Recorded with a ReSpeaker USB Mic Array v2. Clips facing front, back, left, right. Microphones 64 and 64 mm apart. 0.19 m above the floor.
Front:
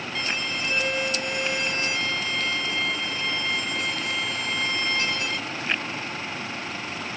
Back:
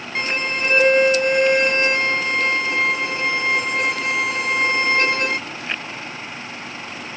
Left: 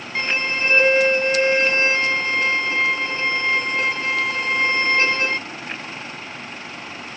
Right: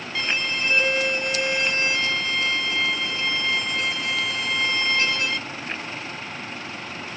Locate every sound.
0.1 s a violin: 145° left